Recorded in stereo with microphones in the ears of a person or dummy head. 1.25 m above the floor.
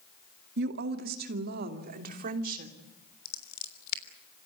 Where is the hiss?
No hiss in this recording.